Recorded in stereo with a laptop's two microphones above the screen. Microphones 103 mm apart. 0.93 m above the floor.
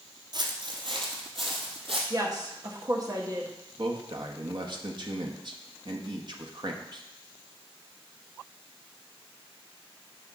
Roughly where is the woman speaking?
Right.